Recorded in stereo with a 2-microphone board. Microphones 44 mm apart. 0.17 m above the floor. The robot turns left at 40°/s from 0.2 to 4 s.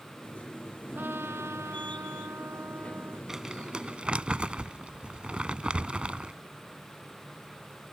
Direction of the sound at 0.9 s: 45° right.